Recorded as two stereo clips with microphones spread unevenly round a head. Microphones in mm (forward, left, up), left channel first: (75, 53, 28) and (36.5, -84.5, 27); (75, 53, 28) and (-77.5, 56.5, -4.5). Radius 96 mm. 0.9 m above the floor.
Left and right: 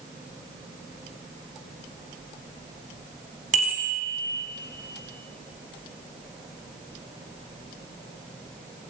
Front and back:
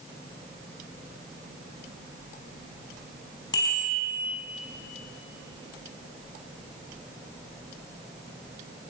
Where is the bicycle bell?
70° right, 5 m.